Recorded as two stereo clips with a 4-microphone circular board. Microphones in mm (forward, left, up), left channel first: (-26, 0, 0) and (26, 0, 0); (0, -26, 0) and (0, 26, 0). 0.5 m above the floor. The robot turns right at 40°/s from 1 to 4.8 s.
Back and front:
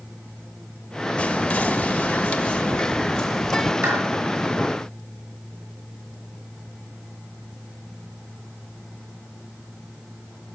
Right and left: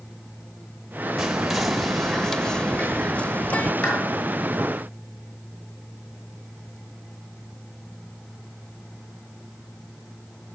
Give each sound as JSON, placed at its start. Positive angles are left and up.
{"t": 1.2, "sound": "whispering", "azimuth_deg": 160, "distance_m": 0.8}
{"t": 3.8, "sound": "a clap", "azimuth_deg": -30, "distance_m": 6.0}